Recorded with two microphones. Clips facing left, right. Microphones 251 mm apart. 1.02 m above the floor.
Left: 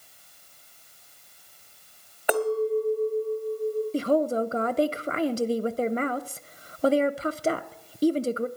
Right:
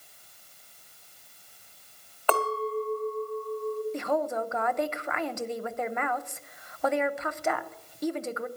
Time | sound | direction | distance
2.3 | a clink | 15° left (ahead or behind) | 1.1 m
3.9 | a woman speaking | 35° left (ahead or behind) | 0.7 m